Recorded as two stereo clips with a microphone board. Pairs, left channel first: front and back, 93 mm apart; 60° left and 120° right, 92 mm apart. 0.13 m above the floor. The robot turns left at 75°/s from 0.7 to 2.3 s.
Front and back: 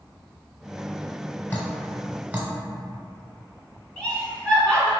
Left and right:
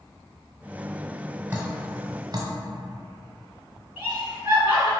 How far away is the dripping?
About 0.8 m.